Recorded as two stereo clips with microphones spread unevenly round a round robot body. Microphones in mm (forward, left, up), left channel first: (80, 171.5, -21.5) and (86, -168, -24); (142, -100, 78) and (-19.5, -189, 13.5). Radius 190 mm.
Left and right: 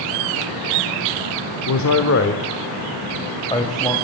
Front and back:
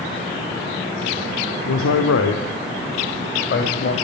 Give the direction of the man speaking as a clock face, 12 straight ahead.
10 o'clock.